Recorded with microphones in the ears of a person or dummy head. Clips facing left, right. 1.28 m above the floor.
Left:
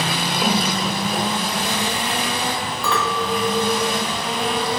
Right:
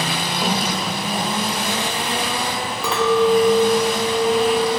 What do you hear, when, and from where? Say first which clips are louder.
0.4 s a cough: left 2 dB; centre (ahead or behind), 0.8 m
2.8 s a clink: right 8 dB; 15° right (ahead or behind), 0.5 m